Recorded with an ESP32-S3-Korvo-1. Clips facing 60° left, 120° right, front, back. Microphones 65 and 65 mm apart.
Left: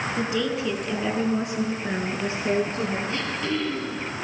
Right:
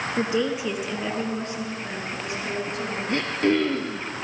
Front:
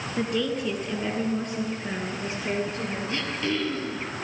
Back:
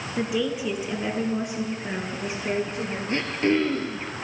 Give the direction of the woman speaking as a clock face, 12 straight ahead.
3 o'clock.